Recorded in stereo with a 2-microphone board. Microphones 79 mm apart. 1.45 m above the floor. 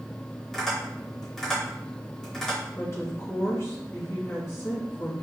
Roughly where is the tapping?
Centre.